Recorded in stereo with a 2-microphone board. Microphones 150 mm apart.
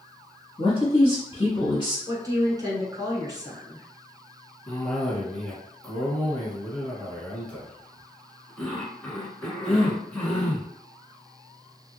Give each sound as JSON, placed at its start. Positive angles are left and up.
{"t": 0.6, "sound": "a man speaking", "side_deg": 30, "distance_m": 1.5}
{"t": 2.1, "sound": "a woman speaking", "side_deg": -25, "distance_m": 1.2}
{"t": 4.7, "sound": "a cough", "side_deg": 10, "distance_m": 1.4}